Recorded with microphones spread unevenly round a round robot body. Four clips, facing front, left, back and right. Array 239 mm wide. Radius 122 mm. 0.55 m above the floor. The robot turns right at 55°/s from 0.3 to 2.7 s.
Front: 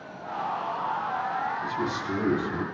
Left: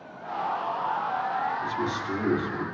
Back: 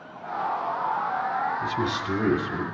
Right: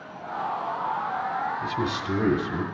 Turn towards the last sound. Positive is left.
turn(degrees=-85)